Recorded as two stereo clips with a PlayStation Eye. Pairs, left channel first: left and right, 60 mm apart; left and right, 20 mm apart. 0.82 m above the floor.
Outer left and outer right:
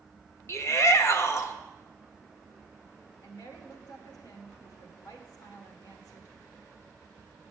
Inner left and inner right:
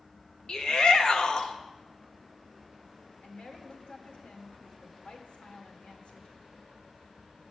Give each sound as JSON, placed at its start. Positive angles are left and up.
{"t": 0.5, "sound": "a shout", "side_deg": 45, "distance_m": 1.0}
{"t": 3.2, "sound": "a woman speaking", "side_deg": 75, "distance_m": 1.9}